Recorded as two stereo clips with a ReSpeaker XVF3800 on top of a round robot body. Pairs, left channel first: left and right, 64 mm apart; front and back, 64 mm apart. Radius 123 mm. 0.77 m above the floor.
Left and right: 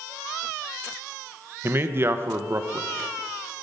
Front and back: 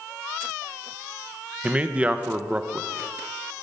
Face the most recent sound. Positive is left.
turn(degrees=-120)